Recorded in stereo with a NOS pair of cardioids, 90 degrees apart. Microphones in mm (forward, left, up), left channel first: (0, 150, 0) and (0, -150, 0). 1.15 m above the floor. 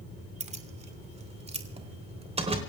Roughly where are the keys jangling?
Ahead.